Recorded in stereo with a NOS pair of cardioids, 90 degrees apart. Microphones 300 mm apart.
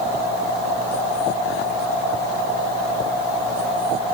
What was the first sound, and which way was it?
Only background noise.